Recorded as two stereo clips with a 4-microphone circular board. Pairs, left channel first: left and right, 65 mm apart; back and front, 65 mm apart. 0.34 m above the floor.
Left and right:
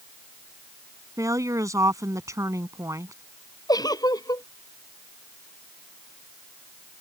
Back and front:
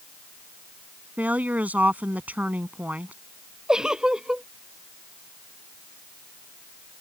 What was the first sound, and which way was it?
A woman speaking, 65° right.